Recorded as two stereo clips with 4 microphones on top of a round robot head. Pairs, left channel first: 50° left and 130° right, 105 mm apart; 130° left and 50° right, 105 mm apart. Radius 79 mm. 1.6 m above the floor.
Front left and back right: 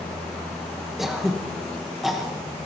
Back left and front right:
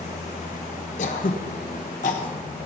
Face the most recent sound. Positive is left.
turn(degrees=140)